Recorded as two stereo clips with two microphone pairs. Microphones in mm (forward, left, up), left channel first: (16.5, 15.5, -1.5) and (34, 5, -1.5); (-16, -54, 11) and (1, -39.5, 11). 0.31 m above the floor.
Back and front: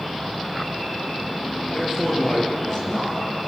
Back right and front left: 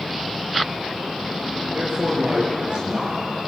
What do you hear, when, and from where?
1.7 s a man speaking: 65° left, 8 m; by 3.2 s 75° left, 7.5 m